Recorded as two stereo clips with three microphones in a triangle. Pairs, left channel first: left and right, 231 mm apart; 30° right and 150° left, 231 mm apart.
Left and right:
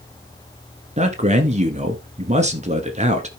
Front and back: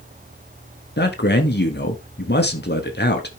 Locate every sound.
1.0 s a man speaking: 40° right, 1.5 m